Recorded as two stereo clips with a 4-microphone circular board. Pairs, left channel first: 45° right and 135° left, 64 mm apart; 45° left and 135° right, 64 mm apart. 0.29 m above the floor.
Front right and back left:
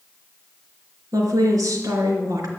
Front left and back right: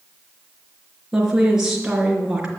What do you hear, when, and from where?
1.1 s a woman speaking: 145° left, 4 m